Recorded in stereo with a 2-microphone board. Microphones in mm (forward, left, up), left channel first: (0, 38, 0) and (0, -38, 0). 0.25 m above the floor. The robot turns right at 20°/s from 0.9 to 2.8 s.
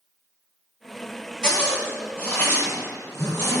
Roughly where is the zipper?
Centre.